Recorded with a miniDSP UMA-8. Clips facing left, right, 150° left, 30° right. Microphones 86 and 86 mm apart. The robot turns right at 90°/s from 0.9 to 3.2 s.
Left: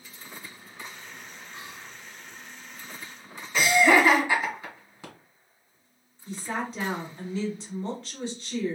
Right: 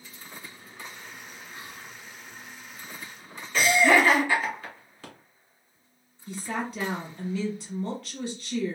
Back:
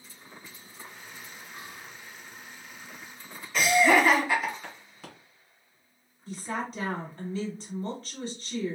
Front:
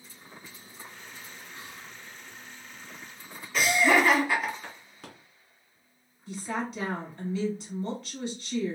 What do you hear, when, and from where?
1.5 s whispering: 120° left, 1.0 m; by 2.0 s 160° left, 1.0 m
3.5 s laughter: 60° left, 1.5 m
6.3 s a woman speaking: 135° left, 1.8 m